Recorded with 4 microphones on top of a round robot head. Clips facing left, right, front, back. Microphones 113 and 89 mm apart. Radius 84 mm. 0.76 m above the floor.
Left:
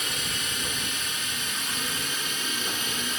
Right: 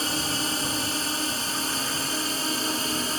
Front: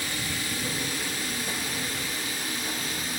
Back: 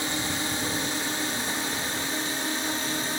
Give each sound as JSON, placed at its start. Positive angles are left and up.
{"t": 0.0, "sound": "a drone", "azimuth_deg": -125}